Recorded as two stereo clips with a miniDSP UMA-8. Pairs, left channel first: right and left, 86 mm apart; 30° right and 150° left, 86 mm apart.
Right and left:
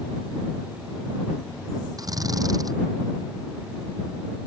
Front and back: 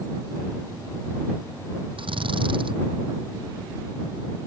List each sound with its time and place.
2.0 s a drill: 135° left